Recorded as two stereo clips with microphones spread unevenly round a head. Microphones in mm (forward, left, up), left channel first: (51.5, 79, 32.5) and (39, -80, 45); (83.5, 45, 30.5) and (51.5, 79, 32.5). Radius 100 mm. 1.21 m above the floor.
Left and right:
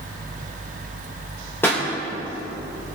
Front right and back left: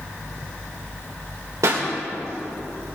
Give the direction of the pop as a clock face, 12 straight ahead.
6 o'clock.